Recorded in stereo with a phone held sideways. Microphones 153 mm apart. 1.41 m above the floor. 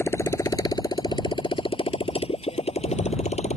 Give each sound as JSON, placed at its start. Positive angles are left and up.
{"t": 0.0, "sound": "a motorcycle", "side_deg": 15}